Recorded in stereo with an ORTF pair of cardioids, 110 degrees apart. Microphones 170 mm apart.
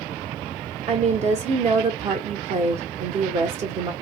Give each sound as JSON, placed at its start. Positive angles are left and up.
{"t": 0.9, "sound": "a woman speaking", "azimuth_deg": -40, "distance_m": 0.9}